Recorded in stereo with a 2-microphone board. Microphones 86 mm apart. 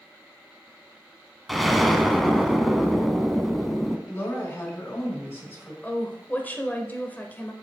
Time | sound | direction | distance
1.5 | an explosion | centre (ahead or behind) | 0.6 m
4.1 | a woman speaking | 30° left (ahead or behind) | 3.5 m
5.8 | a woman speaking | 20° left (ahead or behind) | 1.0 m